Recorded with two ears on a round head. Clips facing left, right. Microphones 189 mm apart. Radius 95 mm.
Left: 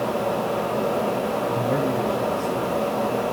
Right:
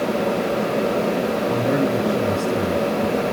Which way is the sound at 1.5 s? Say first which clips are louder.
Right 4 dB; 60° right (ahead or behind).